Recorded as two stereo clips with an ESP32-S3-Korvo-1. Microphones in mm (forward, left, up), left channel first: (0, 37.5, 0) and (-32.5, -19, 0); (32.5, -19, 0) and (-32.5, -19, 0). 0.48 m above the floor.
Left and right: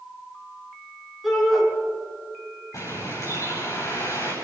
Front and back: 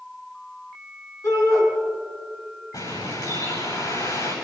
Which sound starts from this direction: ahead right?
A shout, at 1.2 s.